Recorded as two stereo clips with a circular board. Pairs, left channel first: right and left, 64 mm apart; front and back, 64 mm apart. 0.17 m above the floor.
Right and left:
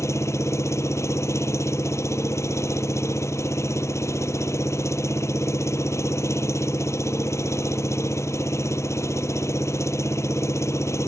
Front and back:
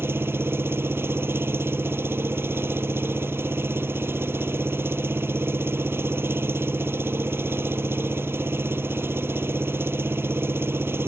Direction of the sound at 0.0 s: 130° right.